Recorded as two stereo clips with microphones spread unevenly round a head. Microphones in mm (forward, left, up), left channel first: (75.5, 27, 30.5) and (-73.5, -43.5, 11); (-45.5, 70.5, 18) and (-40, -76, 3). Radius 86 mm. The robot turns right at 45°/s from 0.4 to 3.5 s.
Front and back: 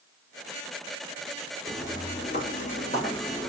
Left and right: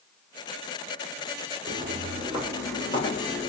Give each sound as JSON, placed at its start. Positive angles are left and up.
{"t": 1.7, "sound": "footsteps", "azimuth_deg": -55, "distance_m": 1.3}